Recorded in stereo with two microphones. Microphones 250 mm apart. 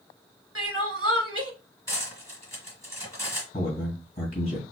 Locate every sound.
0.6 s crying: 65° right (ahead or behind), 1.0 m
1.9 s cutlery clinking: 10° left (ahead or behind), 1.7 m
3.5 s a man speaking: 25° left (ahead or behind), 1.6 m